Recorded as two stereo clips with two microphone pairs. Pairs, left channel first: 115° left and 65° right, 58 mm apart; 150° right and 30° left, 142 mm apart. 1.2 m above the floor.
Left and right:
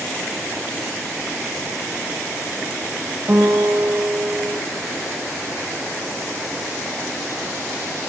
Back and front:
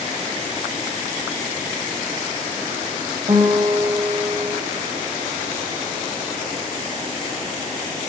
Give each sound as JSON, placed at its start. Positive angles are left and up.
{"t": 3.3, "sound": "a guitar", "azimuth_deg": -15, "distance_m": 1.6}